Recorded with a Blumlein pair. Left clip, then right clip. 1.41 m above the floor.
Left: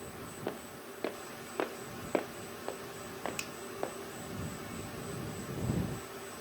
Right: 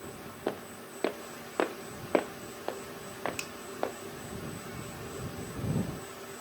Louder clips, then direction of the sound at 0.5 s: Right 6 dB; 15° right.